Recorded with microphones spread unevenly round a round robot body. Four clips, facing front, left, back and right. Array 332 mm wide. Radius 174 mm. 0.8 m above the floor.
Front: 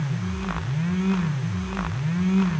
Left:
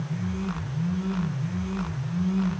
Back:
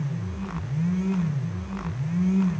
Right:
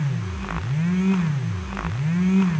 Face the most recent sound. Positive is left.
No sound to turn to.